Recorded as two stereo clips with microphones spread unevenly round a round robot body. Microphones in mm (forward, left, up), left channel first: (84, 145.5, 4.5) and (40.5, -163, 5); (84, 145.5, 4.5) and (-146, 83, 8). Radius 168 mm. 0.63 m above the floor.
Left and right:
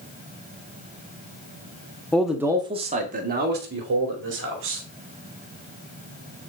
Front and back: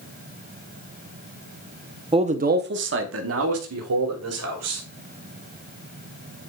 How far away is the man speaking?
About 0.8 m.